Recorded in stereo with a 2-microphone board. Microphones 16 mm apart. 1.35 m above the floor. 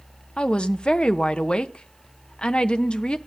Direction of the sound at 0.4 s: 75° left (ahead or behind).